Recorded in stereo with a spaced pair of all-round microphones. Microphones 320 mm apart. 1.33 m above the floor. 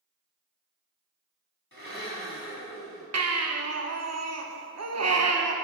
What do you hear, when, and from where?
1.7 s a blender: 40° left (ahead or behind), 1.6 m
3.1 s a baby crying: 55° right (ahead or behind), 0.6 m